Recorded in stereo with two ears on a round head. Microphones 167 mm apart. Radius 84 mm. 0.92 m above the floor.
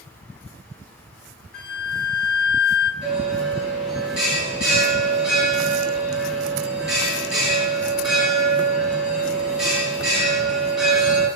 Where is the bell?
5° right (ahead or behind), 5 m.